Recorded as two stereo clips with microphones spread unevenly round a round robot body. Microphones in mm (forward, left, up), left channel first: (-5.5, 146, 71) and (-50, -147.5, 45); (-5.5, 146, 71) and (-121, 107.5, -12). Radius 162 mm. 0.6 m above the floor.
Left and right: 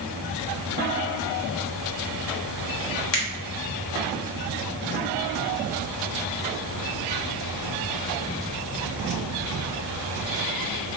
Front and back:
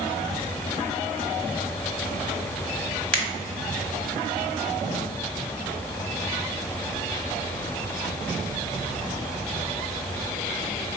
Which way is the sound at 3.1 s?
110° left.